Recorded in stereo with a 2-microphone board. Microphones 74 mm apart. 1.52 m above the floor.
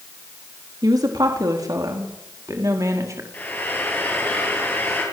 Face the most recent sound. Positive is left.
turn(degrees=25)  # may be behind; listen again after turning